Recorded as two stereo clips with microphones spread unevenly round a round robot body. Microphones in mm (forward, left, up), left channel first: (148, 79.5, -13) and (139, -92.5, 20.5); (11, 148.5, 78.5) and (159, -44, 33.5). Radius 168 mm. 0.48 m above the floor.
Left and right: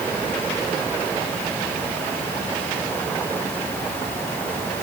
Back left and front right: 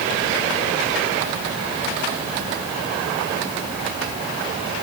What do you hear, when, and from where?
Only background noise.